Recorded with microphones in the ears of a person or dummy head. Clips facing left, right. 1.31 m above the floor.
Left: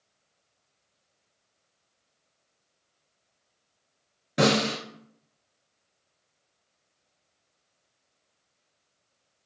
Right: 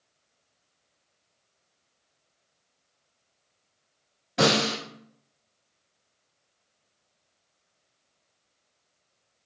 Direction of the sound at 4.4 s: 45° left (ahead or behind).